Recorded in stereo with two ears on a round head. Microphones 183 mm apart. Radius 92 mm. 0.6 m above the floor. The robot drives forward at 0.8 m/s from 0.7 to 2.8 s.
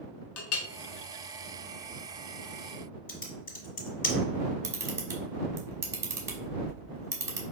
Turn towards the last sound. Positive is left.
turn(degrees=-15)  # may be behind; listen again after turning